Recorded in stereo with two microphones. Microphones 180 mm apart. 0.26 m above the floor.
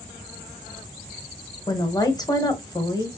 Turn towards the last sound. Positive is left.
turn(degrees=20)  # may be behind; listen again after turning